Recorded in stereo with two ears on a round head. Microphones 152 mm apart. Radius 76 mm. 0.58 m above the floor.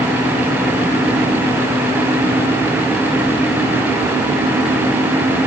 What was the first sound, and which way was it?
Only background noise.